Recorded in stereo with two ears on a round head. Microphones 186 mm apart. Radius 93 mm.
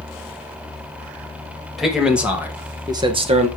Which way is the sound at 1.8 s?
Centre (ahead or behind).